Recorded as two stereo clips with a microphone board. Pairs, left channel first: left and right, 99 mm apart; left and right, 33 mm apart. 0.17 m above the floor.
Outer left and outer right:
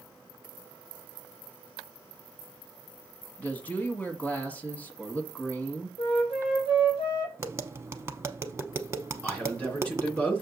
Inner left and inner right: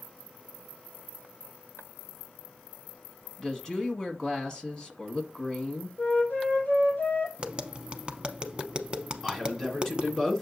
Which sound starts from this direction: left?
A flute, at 6.0 s.